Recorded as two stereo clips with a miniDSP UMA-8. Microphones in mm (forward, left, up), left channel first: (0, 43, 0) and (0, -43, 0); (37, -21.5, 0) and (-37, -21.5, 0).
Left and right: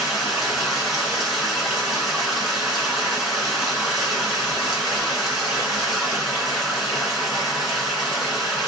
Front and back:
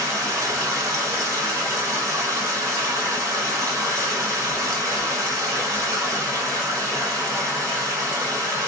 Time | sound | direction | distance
0.0 | running water | 170° right | 1.8 m